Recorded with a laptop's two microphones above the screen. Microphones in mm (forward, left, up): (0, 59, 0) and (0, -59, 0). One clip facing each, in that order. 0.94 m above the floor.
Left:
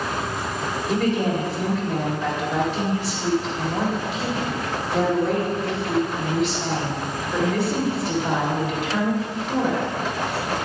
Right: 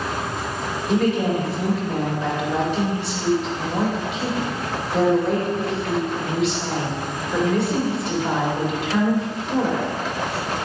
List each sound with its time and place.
0.9 s a woman speaking: centre (ahead or behind), 1.8 m